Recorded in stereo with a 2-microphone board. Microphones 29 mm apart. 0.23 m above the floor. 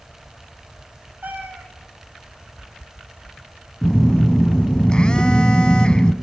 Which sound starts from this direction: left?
A phone buzzing, at 3.8 s.